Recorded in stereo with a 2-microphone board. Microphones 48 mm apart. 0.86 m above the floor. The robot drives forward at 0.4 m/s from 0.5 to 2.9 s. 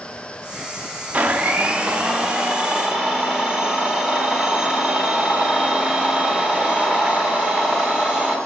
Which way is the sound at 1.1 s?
30° right (ahead or behind).